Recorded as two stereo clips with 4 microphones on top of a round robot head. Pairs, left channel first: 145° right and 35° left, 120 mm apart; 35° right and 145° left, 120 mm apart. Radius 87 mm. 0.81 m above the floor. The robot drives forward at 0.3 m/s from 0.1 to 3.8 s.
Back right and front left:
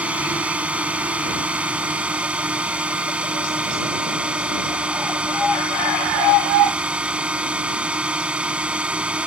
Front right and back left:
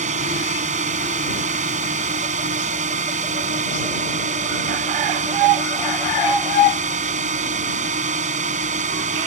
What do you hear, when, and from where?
0.0 s a drone: 115° left; by 9.3 s 120° left